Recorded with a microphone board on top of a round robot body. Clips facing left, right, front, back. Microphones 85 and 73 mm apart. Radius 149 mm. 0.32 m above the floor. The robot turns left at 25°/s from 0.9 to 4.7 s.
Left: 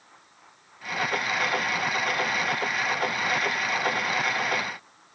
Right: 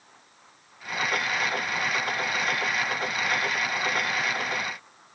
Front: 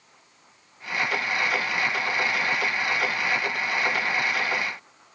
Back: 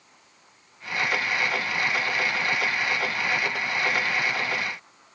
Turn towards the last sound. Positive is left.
No sound to turn to.